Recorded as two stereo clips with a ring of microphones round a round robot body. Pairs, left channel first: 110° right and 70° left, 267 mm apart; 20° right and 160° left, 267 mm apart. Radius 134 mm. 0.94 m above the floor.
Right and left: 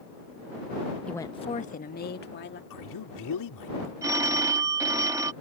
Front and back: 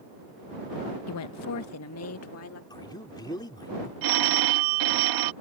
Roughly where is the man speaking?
Right.